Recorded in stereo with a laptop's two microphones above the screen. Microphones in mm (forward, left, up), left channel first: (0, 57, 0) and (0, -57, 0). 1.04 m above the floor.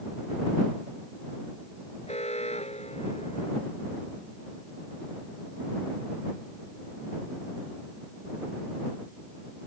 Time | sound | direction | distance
2.1 | an alarm | 70° left (ahead or behind) | ?